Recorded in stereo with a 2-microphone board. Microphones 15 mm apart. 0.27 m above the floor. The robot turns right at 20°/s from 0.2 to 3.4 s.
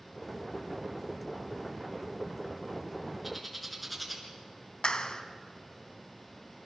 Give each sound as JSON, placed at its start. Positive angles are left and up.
{"t": 3.2, "sound": "a bird", "side_deg": -10, "distance_m": 4.5}
{"t": 4.8, "sound": "a clap", "side_deg": 55, "distance_m": 1.9}